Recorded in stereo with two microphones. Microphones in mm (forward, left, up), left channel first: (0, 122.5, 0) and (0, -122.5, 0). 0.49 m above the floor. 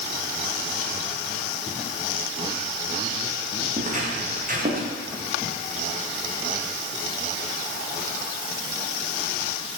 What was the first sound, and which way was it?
Footsteps, 30° right (ahead or behind).